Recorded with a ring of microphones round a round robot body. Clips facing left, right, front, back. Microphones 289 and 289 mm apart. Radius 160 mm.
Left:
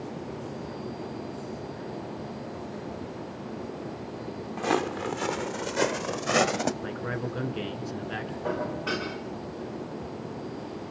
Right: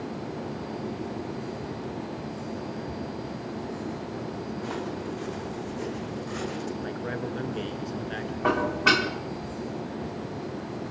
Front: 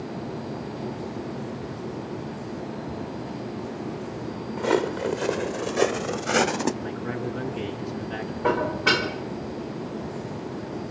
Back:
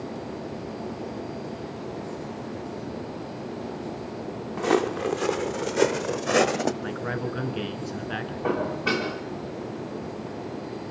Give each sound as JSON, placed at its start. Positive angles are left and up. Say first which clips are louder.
{"t": 4.6, "sound": "footsteps", "louder": "left 9 dB, even", "azimuth_deg": 105, "distance_m": 3.0}
{"t": 6.8, "sound": "a man speaking", "louder": "right 1 dB, even", "azimuth_deg": 165, "distance_m": 5.5}
{"t": 8.4, "sound": "dishes clattering", "louder": "right 6 dB, front 2 dB", "azimuth_deg": -70, "distance_m": 3.5}